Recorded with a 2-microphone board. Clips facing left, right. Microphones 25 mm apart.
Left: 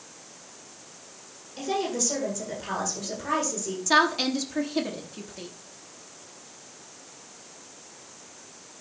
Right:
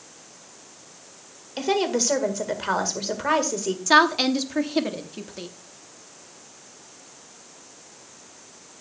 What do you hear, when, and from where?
1.6 s a woman speaking: 50° right (ahead or behind), 1.8 m
3.9 s a woman speaking: 15° right (ahead or behind), 0.9 m